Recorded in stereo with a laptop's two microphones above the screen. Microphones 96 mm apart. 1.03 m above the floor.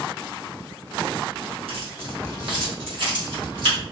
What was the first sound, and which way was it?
Keys jangling, 80° right.